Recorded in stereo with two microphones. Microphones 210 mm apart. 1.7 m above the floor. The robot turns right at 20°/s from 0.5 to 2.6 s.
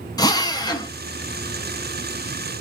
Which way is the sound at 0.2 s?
20° left (ahead or behind).